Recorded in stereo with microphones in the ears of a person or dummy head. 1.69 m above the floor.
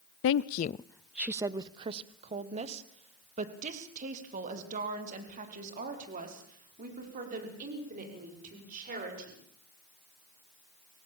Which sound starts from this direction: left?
A woman speaking, at 0.2 s.